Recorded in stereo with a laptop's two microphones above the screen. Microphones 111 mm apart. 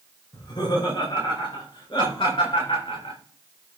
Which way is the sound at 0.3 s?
40° left (ahead or behind).